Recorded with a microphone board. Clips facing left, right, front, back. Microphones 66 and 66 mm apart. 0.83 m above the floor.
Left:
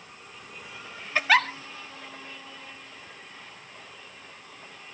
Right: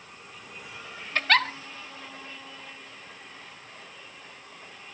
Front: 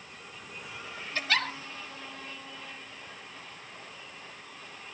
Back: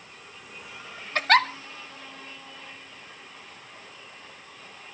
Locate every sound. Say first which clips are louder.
1.1 s a giggle: left 2 dB, back 10 dB; 170° left, 1.4 m